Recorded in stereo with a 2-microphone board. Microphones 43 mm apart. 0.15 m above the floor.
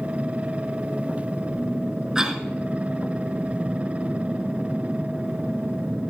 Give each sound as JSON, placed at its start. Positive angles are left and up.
{"t": 2.1, "sound": "a cough", "side_deg": -15, "distance_m": 1.8}